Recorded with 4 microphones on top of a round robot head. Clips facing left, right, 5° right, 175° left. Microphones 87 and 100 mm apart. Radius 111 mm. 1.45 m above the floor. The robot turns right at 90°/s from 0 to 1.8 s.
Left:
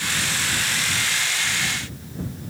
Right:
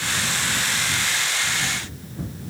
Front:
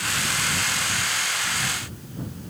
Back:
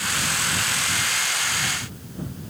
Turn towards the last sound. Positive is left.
No sound to turn to.